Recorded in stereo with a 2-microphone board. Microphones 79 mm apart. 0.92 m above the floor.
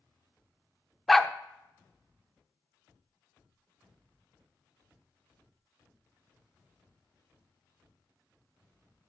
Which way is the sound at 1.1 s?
Centre (ahead or behind).